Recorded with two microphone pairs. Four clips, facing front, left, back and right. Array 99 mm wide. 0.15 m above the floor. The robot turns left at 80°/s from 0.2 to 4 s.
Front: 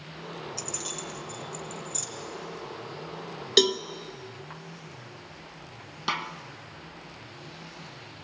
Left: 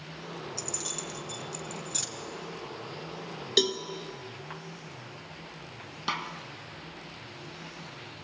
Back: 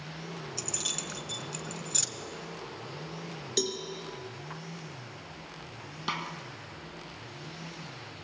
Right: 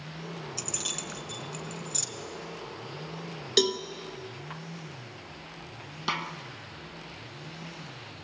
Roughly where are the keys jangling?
Right.